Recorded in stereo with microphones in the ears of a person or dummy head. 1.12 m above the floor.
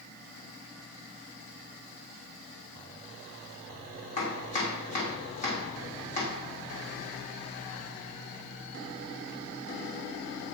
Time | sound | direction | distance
4.2 | chopping | 40° left (ahead or behind) | 1.5 m